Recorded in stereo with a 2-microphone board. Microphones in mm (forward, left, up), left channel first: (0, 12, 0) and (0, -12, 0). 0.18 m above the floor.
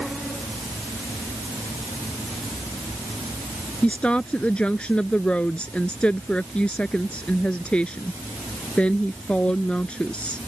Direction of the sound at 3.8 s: 60° left (ahead or behind).